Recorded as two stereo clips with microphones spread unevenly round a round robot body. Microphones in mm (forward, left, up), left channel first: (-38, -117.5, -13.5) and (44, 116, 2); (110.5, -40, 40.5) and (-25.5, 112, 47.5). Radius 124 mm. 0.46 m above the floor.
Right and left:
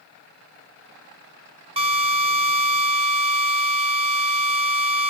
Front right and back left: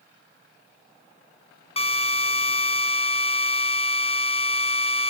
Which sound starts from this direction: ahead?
A drill, at 1.8 s.